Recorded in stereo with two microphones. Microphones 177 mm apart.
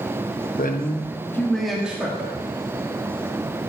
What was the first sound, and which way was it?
A man speaking, 55° left (ahead or behind).